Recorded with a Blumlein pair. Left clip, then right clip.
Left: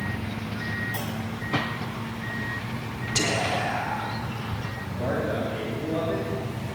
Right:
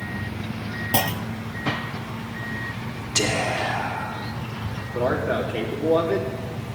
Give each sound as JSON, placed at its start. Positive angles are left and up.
{"t": 0.9, "sound": "a clunk", "azimuth_deg": -35, "distance_m": 0.6}
{"t": 3.1, "sound": "whispering", "azimuth_deg": -5, "distance_m": 3.5}
{"t": 4.9, "sound": "a man speaking", "azimuth_deg": -20, "distance_m": 3.0}